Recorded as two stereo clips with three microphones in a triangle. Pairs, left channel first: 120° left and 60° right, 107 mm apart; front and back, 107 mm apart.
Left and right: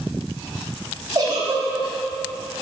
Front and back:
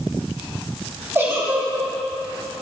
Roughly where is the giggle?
Behind right.